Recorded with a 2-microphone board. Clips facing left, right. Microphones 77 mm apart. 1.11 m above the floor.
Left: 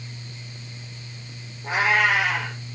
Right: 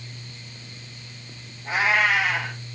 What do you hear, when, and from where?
1.6 s a cat meowing: 50° left (ahead or behind), 6 m